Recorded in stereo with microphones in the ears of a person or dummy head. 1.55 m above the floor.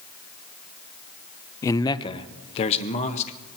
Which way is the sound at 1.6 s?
15° left (ahead or behind).